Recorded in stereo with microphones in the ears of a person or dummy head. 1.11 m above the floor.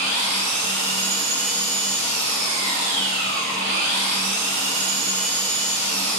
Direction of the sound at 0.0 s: 55° right (ahead or behind).